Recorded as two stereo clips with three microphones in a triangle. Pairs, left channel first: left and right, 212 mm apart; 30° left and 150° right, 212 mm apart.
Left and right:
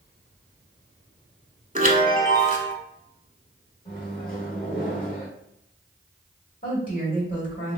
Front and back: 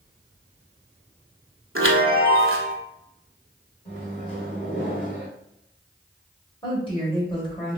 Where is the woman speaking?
80° left, 1.7 m.